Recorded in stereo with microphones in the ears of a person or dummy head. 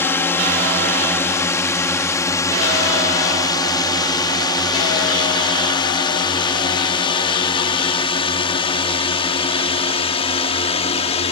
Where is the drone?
10° left (ahead or behind); by 11.3 s 30° left (ahead or behind).